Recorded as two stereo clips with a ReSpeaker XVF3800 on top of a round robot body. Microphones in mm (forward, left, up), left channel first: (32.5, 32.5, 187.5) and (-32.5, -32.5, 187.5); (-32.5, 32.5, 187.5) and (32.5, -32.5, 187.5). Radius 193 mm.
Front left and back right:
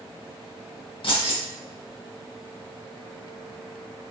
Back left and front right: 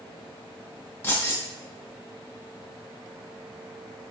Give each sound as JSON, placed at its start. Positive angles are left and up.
{"t": 1.0, "sound": "keys jangling", "azimuth_deg": 70, "distance_m": 1.7}